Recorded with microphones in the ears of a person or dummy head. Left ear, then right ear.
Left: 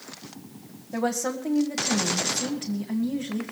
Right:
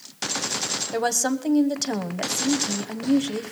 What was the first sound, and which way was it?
A woman speaking, 70° right (ahead or behind).